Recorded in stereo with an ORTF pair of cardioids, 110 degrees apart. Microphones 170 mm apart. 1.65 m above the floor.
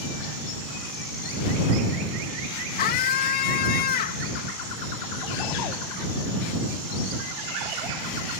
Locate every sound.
2.8 s a scream: 65° left